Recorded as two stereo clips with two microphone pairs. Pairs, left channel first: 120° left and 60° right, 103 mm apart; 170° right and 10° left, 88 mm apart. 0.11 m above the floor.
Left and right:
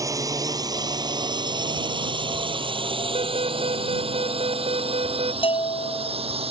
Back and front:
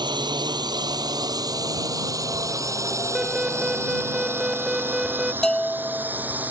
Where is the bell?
105° left.